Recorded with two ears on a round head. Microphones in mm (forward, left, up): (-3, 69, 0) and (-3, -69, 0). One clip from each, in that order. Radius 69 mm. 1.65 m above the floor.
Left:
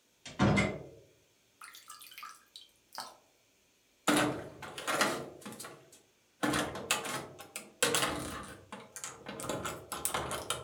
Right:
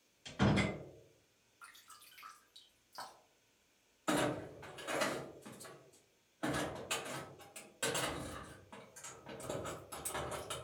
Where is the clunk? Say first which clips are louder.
Left 5 dB; 80° left, 0.6 m.